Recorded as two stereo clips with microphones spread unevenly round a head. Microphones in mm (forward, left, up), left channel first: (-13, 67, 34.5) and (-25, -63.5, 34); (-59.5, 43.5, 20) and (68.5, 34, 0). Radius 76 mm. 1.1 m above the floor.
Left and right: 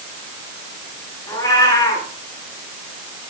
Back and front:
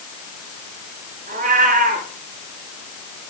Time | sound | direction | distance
1.3 | a cat meowing | 15° left | 8.5 m